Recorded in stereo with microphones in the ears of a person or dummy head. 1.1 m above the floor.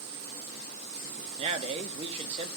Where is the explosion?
I don't hear an explosion.